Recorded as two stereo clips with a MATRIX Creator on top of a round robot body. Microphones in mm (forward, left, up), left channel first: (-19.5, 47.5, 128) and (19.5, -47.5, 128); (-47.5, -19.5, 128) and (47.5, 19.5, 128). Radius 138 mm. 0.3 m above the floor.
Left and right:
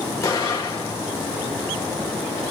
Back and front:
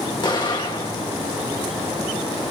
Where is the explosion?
170° left, 2 m.